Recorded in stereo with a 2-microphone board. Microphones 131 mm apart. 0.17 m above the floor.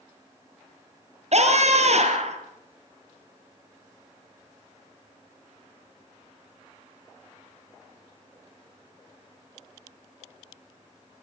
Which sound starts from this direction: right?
A scream, at 1.3 s.